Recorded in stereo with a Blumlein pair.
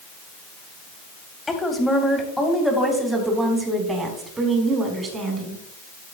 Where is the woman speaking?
10° left, 3 m; by 5.6 s 20° right, 5 m.